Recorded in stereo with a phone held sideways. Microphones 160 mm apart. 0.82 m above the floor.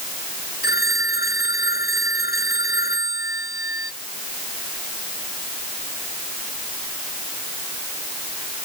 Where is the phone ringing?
80° left.